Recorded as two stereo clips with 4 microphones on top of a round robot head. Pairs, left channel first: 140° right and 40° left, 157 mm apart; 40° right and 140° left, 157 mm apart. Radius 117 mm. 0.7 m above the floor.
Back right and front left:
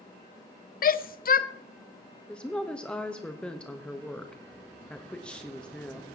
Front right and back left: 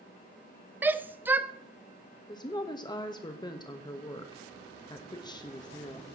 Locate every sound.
0.8 s a shout: 145° right, 0.7 m
2.3 s a woman speaking: 65° right, 1.0 m